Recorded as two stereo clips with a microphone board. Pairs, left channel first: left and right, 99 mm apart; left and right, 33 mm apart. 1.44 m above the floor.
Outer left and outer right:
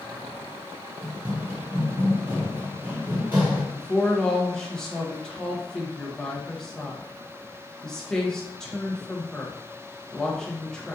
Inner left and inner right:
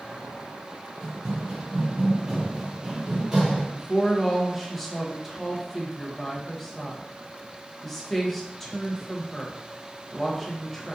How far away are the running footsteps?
About 1.7 m.